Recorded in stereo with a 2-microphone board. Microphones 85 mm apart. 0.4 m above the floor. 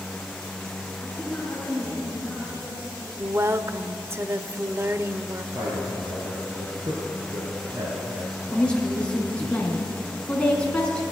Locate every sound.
1.0 s a woman speaking: 15° left (ahead or behind), 5.5 m; by 3.1 s 25° left (ahead or behind), 6 m
3.2 s a woman speaking: 30° right (ahead or behind), 1.0 m
5.5 s a man speaking: 45° right (ahead or behind), 5.5 m
8.5 s a woman speaking: 10° left (ahead or behind), 3.5 m